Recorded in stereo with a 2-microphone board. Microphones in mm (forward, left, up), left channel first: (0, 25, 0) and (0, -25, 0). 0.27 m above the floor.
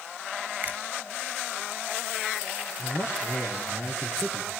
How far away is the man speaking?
About 4.5 m.